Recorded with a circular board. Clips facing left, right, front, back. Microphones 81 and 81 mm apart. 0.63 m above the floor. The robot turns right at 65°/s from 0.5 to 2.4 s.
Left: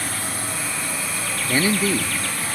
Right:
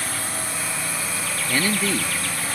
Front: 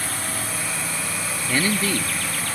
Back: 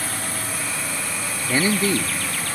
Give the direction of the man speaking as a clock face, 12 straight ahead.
8 o'clock.